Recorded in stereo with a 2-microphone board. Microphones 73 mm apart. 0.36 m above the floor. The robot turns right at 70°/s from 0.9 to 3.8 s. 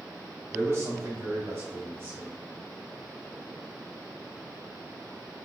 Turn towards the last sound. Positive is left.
turn(degrees=80)